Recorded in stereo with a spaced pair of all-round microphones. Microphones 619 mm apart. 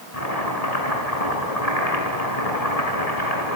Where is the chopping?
75° left (ahead or behind), 7.5 m.